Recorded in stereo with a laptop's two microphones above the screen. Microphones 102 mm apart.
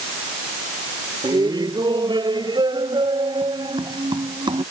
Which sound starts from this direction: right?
Laughter, at 1.2 s.